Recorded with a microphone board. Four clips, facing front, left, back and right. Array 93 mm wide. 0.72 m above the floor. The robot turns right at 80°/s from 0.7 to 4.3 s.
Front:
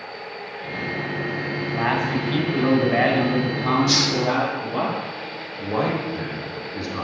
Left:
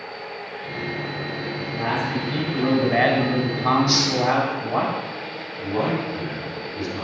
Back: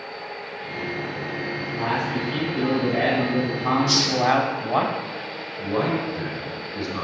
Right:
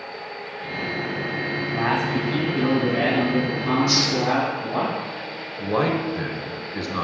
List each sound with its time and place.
1.6 s a man speaking: 60° right, 3 m; by 4.9 s 155° left, 3 m
3.9 s a hiss: 5° right, 1.1 m; by 4.2 s 25° left, 1.1 m
5.6 s a man speaking: 80° right, 3.5 m